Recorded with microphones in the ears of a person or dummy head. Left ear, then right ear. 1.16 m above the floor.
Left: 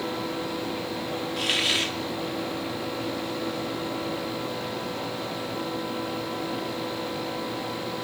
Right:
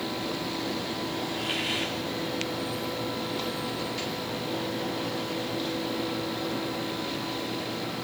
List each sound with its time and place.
1.4 s a hiss: 45° left (ahead or behind), 2.5 m